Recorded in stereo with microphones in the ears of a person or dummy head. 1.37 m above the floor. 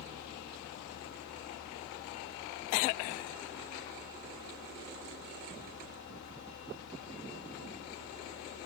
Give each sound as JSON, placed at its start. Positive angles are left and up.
{"t": 0.0, "sound": "a fan", "side_deg": 60, "distance_m": 0.9}